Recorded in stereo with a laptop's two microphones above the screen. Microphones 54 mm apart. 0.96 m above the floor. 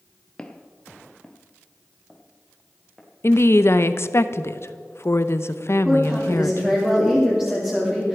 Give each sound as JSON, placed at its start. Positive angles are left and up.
{"t": 0.4, "sound": "footsteps", "side_deg": 15, "distance_m": 1.0}
{"t": 3.2, "sound": "a woman speaking", "side_deg": 55, "distance_m": 0.7}
{"t": 5.8, "sound": "a woman speaking", "side_deg": -20, "distance_m": 3.0}